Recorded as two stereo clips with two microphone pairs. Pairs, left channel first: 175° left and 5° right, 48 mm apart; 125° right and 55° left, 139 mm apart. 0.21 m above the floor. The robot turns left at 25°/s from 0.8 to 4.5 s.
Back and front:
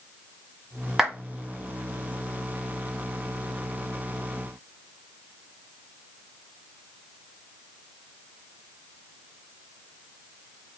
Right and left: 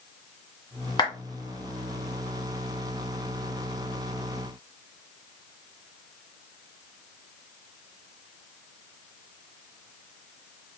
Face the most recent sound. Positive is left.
turn(degrees=-165)